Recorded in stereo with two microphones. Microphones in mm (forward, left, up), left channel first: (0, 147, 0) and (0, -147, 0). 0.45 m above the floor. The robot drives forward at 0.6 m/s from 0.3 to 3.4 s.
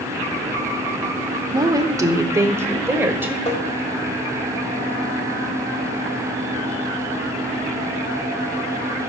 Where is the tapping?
20° left (ahead or behind), 1.4 m.